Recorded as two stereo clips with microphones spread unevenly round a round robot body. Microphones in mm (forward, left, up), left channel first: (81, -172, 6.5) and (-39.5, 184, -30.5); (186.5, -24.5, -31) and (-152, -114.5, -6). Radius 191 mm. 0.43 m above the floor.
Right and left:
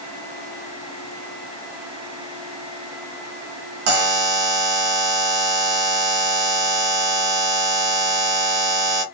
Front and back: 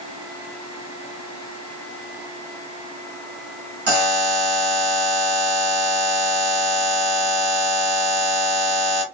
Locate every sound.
3.9 s a buzzer: 130° left, 1.3 m